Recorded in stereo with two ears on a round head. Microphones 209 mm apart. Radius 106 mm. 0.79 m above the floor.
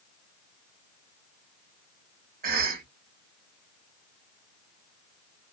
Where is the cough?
40° right (ahead or behind), 0.9 m.